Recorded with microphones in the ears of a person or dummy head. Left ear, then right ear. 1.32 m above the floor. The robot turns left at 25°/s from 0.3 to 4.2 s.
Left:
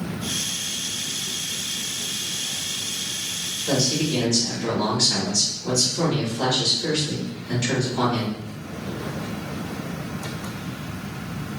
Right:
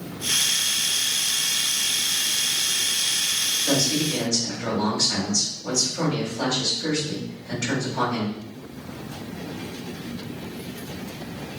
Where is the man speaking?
65° right (ahead or behind), 1.5 m; by 8.3 s 70° right (ahead or behind), 1.5 m.